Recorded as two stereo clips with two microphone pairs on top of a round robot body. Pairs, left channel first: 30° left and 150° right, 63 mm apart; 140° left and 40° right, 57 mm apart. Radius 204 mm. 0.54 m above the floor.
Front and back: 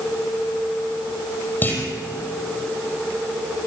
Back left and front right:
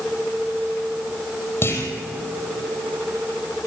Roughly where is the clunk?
Left.